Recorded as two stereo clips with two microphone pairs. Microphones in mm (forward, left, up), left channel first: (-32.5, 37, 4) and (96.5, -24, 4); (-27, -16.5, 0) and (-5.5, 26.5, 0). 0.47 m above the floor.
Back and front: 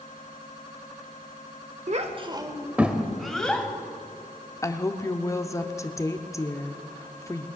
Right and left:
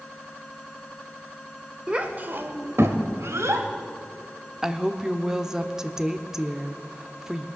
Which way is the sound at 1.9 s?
5° right.